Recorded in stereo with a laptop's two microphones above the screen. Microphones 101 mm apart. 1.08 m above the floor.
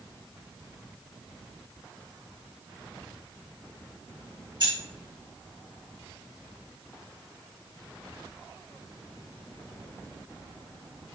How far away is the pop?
I don't hear a pop.